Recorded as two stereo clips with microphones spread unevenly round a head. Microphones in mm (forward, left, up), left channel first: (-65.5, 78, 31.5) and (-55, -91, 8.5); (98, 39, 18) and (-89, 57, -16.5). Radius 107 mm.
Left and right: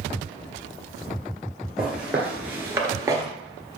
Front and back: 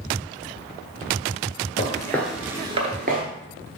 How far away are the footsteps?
About 1.6 m.